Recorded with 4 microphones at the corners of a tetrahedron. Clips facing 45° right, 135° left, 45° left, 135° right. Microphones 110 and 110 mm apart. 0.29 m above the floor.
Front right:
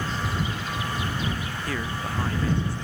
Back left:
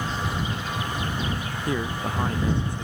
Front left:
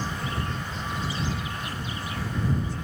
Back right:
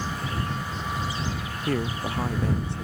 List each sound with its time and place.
1.7 s a man speaking: 155° right